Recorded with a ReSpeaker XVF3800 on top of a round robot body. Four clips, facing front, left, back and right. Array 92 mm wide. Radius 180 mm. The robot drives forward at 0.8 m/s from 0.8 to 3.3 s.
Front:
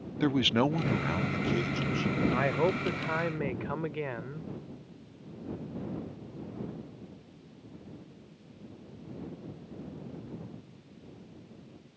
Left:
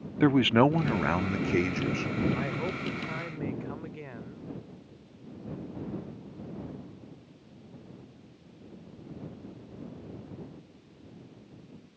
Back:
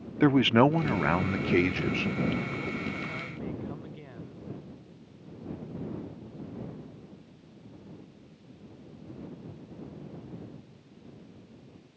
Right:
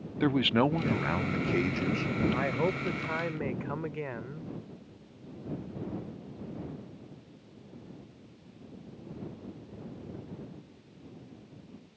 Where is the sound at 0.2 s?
150° left; by 2.1 s 170° left.